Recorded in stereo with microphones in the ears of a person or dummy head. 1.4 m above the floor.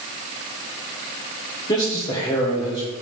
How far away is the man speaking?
About 1.4 m.